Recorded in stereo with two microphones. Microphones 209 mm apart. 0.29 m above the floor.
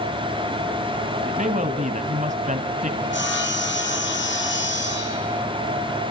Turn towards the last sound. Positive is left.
turn(degrees=65)  # may be behind; listen again after turning